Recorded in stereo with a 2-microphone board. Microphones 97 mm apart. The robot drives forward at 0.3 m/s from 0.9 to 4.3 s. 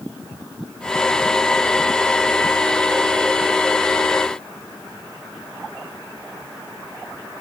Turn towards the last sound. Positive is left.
No sound to turn to.